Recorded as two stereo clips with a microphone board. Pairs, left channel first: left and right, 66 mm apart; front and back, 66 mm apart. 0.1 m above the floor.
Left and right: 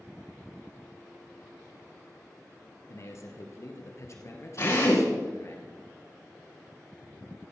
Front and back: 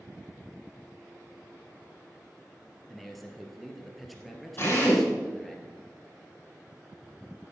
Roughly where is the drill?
Ahead left.